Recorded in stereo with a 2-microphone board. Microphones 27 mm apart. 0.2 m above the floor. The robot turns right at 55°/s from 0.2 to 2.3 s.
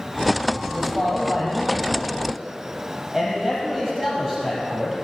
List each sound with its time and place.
0.7 s a man speaking: 100° right, 4.5 m; by 5.0 s 10° right, 4.5 m